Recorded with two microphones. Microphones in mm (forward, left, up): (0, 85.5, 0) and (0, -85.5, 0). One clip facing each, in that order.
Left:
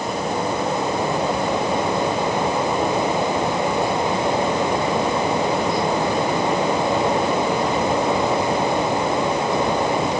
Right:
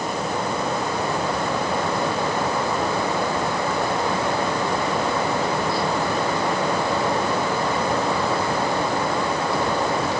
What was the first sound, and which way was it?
Only background noise.